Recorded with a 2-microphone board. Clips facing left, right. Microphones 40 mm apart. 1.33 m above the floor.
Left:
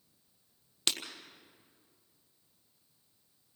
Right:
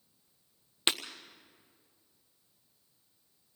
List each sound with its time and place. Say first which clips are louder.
0.9 s breaking glass: right 3 dB; 25° right (ahead or behind), 1.5 m